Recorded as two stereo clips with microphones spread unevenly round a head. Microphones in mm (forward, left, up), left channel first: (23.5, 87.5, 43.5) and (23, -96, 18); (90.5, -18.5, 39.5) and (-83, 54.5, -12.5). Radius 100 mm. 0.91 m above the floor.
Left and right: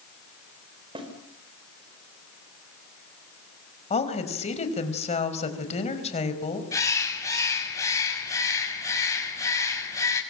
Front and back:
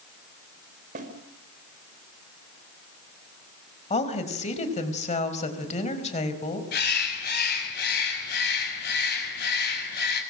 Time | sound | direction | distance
0.9 | a snare drum | 155° right | 4.5 m
3.9 | a woman speaking | 35° left | 5 m
6.7 | a bird | 15° left | 7 m